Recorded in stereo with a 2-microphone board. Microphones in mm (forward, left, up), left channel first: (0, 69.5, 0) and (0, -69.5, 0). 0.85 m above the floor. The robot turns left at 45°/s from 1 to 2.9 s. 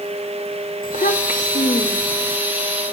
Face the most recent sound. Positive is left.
turn(degrees=-5)